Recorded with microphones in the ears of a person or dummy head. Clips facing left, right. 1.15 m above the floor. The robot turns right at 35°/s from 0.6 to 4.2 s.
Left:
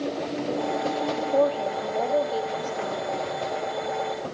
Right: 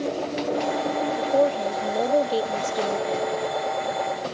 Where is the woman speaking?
165° right, 0.7 m; by 3.3 s 90° right, 0.7 m.